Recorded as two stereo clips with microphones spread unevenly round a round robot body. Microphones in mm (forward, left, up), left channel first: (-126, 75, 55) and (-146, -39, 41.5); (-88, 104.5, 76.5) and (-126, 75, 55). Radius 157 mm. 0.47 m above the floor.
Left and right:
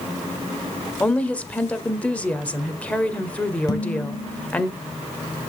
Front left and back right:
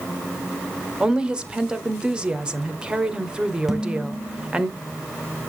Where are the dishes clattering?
135° left, 3 m.